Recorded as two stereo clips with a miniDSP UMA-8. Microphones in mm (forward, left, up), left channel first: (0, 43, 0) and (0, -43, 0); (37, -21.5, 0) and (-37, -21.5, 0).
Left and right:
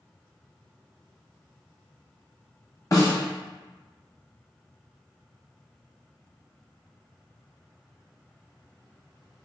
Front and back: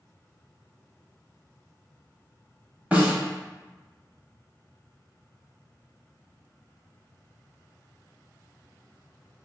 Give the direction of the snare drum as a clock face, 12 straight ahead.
8 o'clock.